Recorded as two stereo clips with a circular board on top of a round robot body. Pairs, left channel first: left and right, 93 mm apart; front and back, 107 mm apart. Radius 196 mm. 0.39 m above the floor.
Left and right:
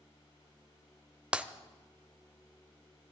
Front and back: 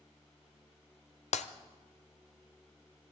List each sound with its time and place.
1.3 s breaking glass: 10° right, 0.8 m